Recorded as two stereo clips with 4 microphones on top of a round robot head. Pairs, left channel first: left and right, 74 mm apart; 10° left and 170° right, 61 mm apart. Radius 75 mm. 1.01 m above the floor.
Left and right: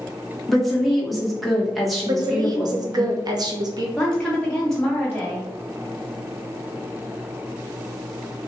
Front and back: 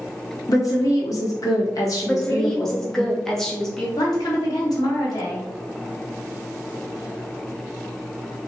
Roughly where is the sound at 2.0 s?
Right.